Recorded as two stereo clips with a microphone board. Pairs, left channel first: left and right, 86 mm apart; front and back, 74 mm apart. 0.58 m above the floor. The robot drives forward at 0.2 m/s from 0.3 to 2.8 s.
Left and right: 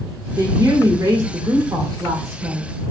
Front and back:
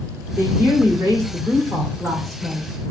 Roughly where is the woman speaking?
Behind right.